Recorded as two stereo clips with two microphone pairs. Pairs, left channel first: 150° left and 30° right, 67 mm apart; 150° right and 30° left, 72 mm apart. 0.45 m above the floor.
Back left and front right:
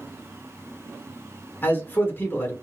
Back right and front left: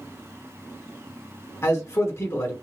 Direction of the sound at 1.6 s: 170° right.